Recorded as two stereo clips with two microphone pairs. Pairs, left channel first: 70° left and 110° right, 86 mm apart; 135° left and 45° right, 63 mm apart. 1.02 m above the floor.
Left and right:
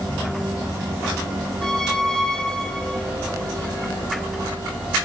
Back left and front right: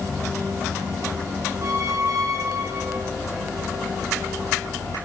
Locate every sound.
1.6 s a squeak: 10° right, 1.3 m